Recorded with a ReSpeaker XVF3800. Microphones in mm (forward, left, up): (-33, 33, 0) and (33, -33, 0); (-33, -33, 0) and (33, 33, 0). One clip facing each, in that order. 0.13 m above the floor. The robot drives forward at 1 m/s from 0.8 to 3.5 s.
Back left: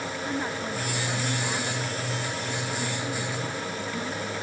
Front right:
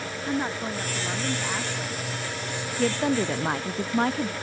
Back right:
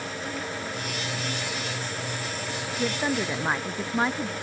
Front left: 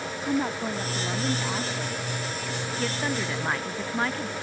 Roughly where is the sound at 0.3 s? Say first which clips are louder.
Front right 4 dB, front left 10 dB; ahead left.